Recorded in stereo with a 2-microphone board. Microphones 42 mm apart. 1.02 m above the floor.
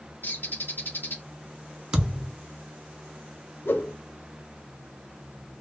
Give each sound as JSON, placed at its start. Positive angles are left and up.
{"t": 0.2, "sound": "a bird", "side_deg": 55, "distance_m": 1.0}
{"t": 1.9, "sound": "a thud", "side_deg": -20, "distance_m": 0.8}
{"t": 3.6, "sound": "a whoosh", "side_deg": 60, "distance_m": 0.6}